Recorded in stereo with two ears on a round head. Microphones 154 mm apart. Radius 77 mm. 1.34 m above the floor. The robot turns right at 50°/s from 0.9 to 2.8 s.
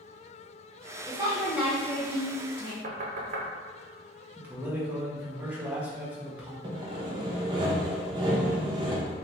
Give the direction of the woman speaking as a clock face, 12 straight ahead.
1 o'clock.